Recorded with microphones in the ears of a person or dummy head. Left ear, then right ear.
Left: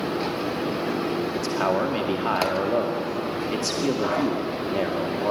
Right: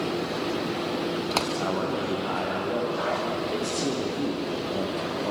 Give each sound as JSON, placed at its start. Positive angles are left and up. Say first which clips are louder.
{"t": 1.3, "sound": "a man speaking", "louder": "left 4 dB", "side_deg": 75, "distance_m": 2.0}